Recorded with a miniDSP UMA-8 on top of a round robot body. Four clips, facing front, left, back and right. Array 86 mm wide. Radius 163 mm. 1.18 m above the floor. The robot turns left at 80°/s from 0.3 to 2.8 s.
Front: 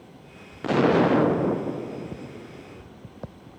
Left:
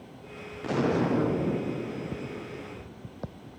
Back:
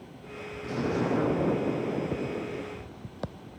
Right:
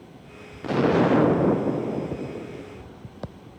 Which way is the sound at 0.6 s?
5° right.